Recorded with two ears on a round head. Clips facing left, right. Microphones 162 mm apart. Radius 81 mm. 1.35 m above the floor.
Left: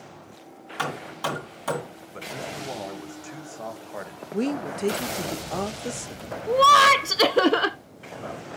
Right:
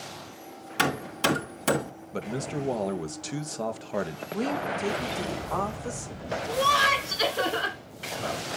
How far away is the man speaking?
About 1.3 m.